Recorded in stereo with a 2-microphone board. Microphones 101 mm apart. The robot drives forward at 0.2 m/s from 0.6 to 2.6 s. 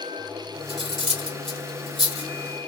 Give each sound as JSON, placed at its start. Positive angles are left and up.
{"t": 0.7, "sound": "cutlery clinking", "side_deg": -65, "distance_m": 1.8}